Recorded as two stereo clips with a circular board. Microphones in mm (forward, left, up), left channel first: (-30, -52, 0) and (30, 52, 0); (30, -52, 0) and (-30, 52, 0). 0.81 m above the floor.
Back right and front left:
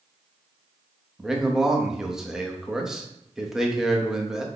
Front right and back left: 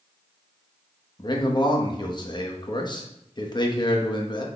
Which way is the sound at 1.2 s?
25° right.